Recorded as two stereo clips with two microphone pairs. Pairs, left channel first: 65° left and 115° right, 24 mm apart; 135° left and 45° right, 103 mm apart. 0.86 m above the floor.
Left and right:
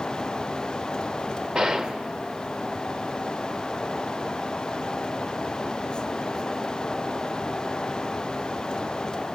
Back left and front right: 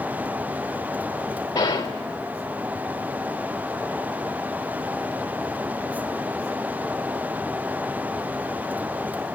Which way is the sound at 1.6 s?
170° right.